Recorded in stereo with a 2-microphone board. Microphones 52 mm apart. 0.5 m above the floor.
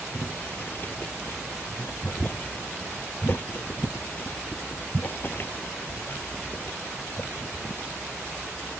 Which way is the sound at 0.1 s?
40° left (ahead or behind).